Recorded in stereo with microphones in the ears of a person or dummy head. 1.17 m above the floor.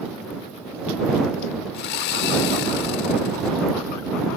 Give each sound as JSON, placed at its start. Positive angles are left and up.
{"t": 1.7, "sound": "sawing", "side_deg": 60}